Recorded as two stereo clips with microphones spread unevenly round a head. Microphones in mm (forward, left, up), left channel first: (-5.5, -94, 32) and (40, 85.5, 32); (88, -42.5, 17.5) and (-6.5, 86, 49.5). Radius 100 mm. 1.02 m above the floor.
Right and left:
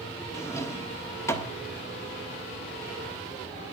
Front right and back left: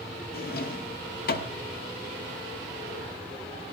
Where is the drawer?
30° right, 1.2 m.